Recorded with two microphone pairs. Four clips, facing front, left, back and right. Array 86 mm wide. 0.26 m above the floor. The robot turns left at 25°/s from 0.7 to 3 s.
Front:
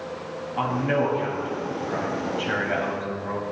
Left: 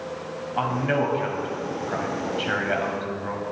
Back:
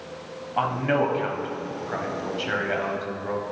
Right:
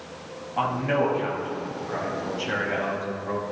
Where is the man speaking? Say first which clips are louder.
Even, back 1 dB; 160° left, 1.5 m; by 3.4 s 100° left, 1.5 m.